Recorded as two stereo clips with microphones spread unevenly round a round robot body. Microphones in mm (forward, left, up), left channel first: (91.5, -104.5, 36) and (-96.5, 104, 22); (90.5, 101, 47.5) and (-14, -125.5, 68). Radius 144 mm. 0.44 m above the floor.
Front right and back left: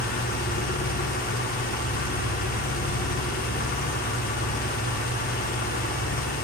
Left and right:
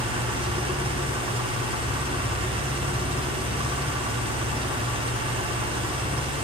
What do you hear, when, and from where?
0.0 s an engine running: 60° right, 0.9 m